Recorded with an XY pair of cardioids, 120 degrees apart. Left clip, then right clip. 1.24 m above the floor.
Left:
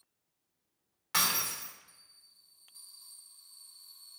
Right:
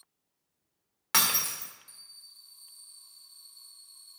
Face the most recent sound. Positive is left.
turn(degrees=-55)